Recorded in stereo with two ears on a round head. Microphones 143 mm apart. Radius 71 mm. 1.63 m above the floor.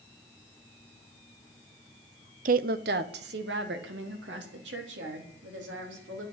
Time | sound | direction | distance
2.5 | a woman speaking | 50° right (ahead or behind) | 0.6 m